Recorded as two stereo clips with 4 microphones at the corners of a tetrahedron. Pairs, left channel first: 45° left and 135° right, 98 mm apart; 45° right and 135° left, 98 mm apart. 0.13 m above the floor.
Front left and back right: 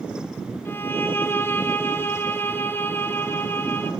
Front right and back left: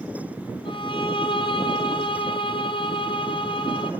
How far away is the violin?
About 1.5 m.